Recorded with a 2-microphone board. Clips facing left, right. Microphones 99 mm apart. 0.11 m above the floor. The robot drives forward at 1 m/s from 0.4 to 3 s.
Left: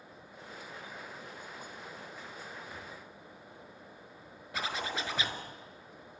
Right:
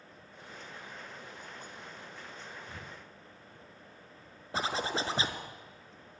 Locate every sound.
2.7 s breathing: 50° right (ahead or behind), 1.8 m; by 3.7 s 55° right (ahead or behind), 1.7 m
4.5 s a zipper: 30° right (ahead or behind), 2.0 m